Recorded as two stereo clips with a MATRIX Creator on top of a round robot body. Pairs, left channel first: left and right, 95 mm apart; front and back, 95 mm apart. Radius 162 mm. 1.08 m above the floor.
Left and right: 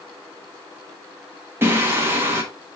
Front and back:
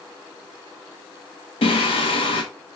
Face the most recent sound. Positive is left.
turn(degrees=-25)